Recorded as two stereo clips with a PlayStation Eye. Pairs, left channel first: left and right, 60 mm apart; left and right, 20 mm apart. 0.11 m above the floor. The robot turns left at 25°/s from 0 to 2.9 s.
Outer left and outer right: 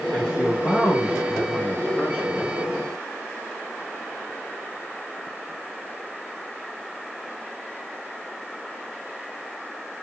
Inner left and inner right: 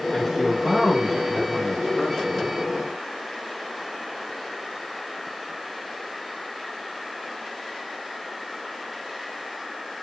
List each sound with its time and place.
0.1 s a man speaking: 20° right (ahead or behind), 1.2 m; by 2.6 s 5° right (ahead or behind), 1.2 m